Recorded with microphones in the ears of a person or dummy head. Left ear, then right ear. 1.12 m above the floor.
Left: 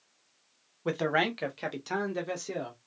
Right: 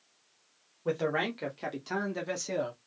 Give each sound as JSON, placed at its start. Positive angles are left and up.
{"t": 0.8, "sound": "a man speaking", "side_deg": 35, "distance_m": 0.9}